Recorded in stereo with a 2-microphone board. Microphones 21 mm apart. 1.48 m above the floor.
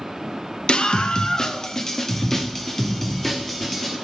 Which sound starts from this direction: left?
A scream, at 0.7 s.